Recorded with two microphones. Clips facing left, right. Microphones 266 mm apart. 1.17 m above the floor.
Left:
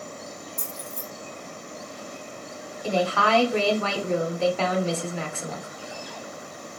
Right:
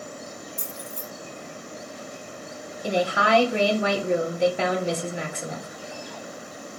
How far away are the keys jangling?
About 1.3 m.